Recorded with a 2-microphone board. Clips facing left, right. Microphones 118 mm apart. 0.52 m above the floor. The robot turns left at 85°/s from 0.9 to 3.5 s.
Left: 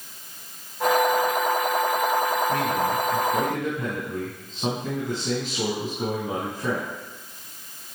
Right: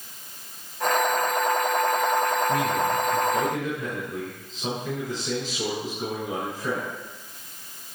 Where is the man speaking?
150° right, 4.5 m; by 6.9 s 125° left, 4.5 m.